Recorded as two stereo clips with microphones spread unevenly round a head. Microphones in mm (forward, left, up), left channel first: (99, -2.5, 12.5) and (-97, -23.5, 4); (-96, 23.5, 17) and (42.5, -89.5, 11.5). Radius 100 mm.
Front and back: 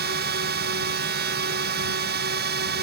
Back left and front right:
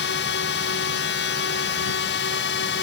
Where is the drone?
150° left.